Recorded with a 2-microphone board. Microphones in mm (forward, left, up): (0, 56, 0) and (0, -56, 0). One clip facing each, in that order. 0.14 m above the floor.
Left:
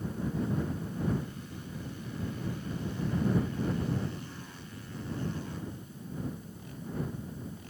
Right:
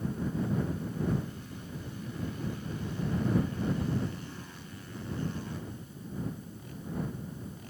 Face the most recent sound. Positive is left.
No sound to turn to.